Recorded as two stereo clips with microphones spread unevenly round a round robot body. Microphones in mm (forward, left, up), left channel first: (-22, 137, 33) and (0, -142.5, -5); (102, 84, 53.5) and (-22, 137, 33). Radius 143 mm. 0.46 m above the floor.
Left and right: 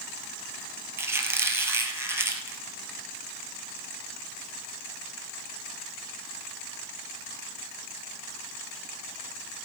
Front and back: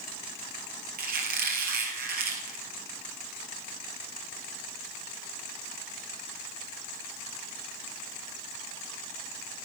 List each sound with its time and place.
1.0 s a squeak: 170° right, 2.5 m